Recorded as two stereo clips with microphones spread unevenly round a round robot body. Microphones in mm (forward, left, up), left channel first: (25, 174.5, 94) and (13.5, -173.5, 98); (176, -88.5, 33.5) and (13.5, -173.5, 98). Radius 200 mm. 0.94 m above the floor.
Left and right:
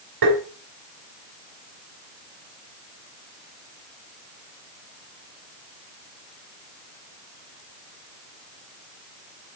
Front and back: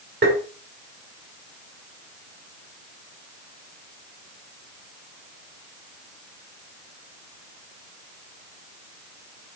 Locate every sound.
0.2 s tapping: 115° right, 2.5 m